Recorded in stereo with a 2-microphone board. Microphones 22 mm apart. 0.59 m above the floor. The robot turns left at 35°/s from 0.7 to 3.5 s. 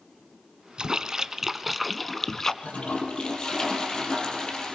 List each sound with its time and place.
0.8 s a splash: 140° right, 1.1 m; by 2.5 s 160° left, 1.1 m
2.6 s a toilet flushing: 65° left, 5 m; by 4.8 s 35° left, 5 m